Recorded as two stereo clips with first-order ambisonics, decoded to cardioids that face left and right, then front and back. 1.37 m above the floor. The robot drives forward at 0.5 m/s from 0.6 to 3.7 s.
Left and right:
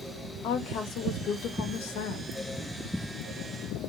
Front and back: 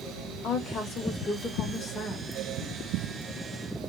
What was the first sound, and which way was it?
A woman speaking, 60° left.